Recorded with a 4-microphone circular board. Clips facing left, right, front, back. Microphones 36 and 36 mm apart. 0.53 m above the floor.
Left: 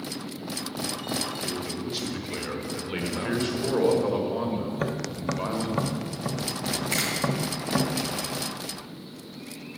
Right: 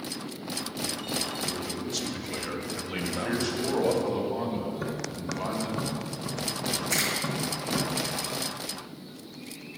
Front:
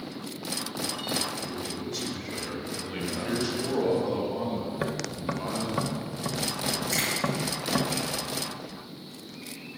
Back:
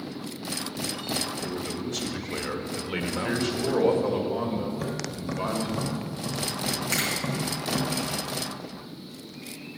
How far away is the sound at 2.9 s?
About 2 m.